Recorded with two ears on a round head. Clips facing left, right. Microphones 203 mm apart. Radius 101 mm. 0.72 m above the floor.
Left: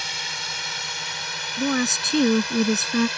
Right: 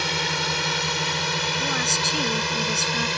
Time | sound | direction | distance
0.0 | a drone | 55° right (ahead or behind) | ?
1.6 | a woman speaking | 75° left (ahead or behind) | ?